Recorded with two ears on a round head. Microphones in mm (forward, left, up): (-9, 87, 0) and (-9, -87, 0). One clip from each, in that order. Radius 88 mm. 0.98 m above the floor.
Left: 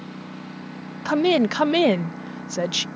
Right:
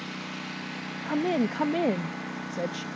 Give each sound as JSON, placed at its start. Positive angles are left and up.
{"t": 0.0, "sound": "a lawn mower", "side_deg": -55}
{"t": 1.1, "sound": "a woman speaking", "side_deg": 75}